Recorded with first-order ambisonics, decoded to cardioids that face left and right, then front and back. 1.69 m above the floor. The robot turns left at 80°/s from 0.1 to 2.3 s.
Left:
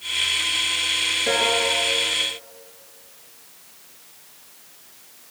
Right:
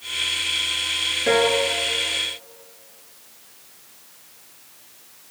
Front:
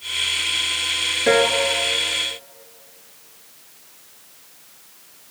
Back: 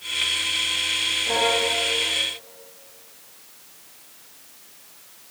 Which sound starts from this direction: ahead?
A piano, at 1.3 s.